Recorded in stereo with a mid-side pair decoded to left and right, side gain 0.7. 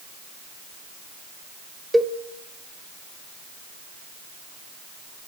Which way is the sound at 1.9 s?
10° right.